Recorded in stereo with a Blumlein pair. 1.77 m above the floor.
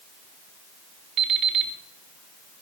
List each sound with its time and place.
1.2 s an alarm clock: 30° right, 2.5 m